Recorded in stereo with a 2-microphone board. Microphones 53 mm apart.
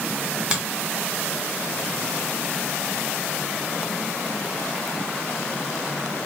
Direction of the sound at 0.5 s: 20° right (ahead or behind).